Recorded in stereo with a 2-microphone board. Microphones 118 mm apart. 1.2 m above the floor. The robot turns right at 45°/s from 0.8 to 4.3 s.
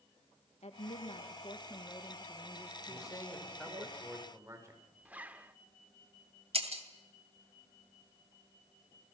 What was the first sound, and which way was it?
A woman speaking, 105° left.